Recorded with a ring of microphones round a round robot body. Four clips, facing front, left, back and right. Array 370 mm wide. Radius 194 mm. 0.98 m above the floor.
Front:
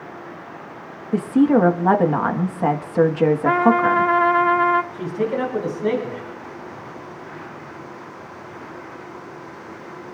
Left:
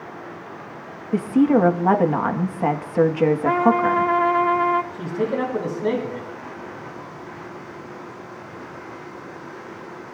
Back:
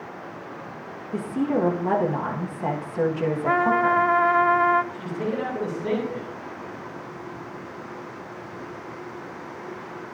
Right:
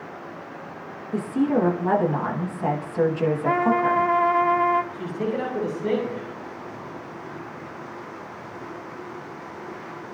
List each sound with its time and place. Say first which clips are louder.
1.1 s a woman speaking: left 5 dB, front 9 dB; 35° left, 1.6 m
3.5 s a trumpet: even, front 2 dB; 15° left, 0.8 m
4.9 s a man speaking: left 3 dB, front 5 dB; 55° left, 9.5 m